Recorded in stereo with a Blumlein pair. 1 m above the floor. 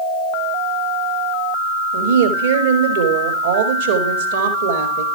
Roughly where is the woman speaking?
Ahead right.